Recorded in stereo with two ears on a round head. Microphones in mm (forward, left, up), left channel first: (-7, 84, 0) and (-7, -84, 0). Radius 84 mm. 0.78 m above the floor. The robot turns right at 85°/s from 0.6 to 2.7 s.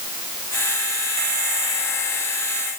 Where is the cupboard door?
I don't hear a cupboard door.